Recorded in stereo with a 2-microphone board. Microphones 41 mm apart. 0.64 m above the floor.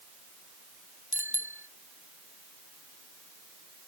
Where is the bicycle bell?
60° right (ahead or behind).